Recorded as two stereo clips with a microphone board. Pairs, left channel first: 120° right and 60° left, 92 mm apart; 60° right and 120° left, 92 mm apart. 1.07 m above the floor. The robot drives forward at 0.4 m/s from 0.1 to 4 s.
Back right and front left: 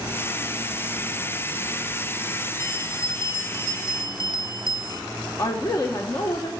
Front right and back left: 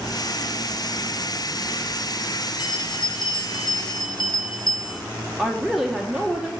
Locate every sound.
2.6 s a bell: 65° right, 2 m; by 5.0 s 80° right, 2 m
5.4 s a woman speaking: 155° right, 0.9 m